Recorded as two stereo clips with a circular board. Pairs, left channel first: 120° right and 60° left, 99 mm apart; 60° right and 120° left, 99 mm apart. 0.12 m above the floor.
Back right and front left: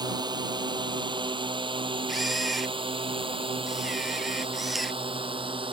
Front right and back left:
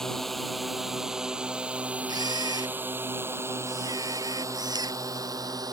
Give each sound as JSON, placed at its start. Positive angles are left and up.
{"t": 0.0, "sound": "a drone", "azimuth_deg": 25}
{"t": 2.1, "sound": "a camera shutter", "azimuth_deg": 150}